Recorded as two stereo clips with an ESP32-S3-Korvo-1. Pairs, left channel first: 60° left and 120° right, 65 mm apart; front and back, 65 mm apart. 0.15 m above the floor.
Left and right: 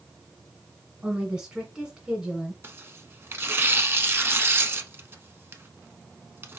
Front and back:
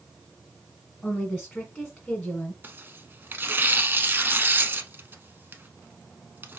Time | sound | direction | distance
1.0 | a woman speaking | 80° right | 1.5 m
2.6 | tearing paper | 145° right | 0.6 m